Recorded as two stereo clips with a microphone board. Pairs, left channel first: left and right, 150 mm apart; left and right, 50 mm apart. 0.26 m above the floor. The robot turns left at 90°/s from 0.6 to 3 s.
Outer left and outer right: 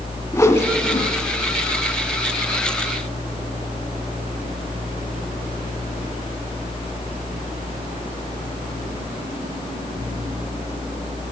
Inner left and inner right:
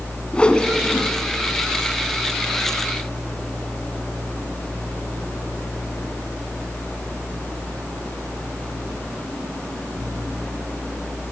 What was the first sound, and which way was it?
A whoosh, 20° left (ahead or behind).